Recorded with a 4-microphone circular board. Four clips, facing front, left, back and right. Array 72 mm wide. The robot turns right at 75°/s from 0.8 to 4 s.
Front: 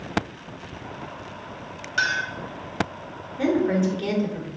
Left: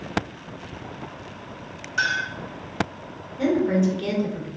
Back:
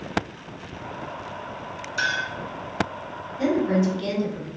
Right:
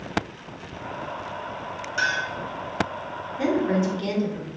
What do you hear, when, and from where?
2.0 s a clink: 5° left, 1.7 m; by 2.3 s 30° left, 1.7 m
3.4 s a woman speaking: straight ahead, 0.9 m; by 4.5 s 45° left, 0.9 m